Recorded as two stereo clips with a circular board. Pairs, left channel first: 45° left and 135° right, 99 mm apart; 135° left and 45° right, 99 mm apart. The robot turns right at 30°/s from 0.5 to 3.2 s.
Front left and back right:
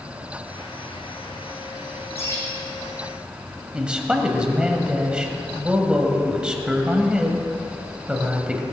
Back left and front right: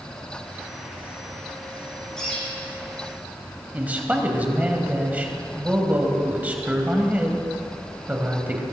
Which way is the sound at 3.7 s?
75° right.